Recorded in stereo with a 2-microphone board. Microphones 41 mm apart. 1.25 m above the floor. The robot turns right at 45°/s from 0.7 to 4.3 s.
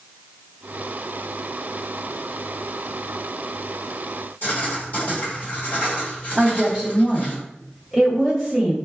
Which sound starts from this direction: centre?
A woman speaking, at 6.4 s.